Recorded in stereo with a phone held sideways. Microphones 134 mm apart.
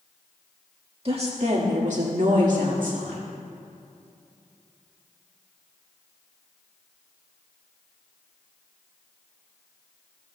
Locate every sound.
1.1 s a woman speaking: 45° right (ahead or behind), 1.9 m; by 3.2 s 75° right (ahead or behind), 2.5 m